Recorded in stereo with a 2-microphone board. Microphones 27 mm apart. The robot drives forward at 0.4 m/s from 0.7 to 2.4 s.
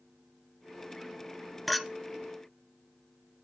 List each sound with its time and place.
1.7 s a clink: 5° left (ahead or behind), 0.5 m